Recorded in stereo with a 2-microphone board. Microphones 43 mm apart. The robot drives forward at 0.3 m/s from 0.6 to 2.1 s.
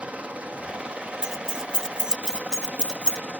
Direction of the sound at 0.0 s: 30° right (ahead or behind).